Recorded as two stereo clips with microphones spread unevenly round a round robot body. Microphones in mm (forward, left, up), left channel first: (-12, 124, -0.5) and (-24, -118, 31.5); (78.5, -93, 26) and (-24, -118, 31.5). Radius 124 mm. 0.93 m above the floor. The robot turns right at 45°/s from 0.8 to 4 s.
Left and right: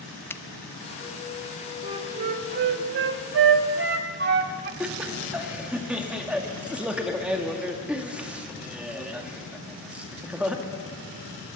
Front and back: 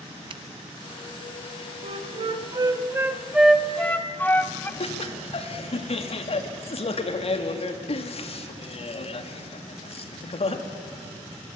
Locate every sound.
0.3 s a finger snap: 160° left, 0.6 m
1.8 s a flute: 160° right, 1.1 m; by 4.7 s 60° right, 1.1 m
4.8 s laughter: 5° right, 2 m